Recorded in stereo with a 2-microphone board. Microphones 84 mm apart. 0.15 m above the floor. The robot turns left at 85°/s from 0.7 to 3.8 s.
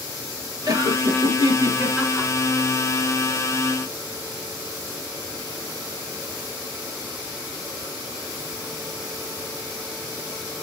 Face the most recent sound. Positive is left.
turn(degrees=40)